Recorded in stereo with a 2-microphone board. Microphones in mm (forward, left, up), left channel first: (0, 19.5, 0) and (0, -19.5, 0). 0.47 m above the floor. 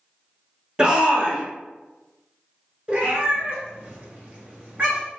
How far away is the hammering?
I don't hear hammering.